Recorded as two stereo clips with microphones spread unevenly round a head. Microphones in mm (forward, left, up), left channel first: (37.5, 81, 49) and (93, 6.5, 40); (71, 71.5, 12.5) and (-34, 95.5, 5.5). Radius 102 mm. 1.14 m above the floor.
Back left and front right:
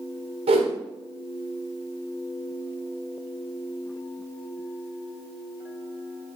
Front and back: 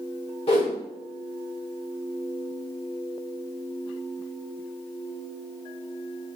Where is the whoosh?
55° right, 1.3 m.